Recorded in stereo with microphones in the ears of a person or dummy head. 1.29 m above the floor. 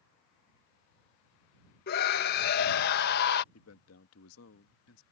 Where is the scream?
55° left (ahead or behind).